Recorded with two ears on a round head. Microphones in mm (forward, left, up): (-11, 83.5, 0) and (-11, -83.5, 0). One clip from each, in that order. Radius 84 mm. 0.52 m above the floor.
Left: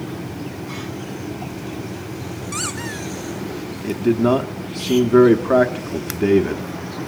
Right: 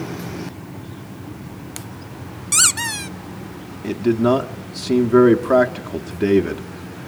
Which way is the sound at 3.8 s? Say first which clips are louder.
Even; 5° right (ahead or behind).